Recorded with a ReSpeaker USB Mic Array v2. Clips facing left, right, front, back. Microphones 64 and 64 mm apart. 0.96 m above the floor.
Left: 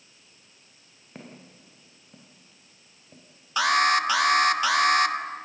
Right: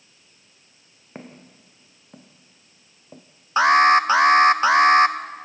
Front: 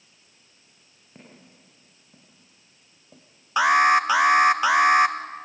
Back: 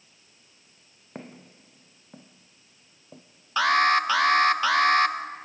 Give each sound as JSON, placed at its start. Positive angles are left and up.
{"t": 1.1, "sound": "footsteps", "azimuth_deg": -150, "distance_m": 3.0}
{"t": 3.6, "sound": "an alarm", "azimuth_deg": -60, "distance_m": 1.2}